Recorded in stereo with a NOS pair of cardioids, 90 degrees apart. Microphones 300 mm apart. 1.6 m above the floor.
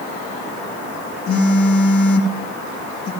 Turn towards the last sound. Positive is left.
turn(degrees=50)